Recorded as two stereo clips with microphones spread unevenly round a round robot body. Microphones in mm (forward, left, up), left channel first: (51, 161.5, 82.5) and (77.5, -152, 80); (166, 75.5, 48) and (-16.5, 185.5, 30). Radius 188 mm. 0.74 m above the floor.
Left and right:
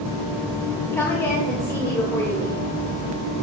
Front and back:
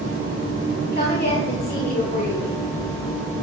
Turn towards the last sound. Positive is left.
turn(degrees=15)